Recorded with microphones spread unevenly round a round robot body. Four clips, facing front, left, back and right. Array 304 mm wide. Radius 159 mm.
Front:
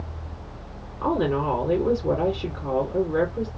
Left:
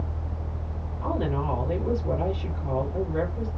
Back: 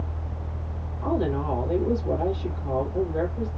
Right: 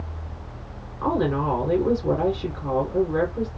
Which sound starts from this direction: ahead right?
A woman speaking, at 1.0 s.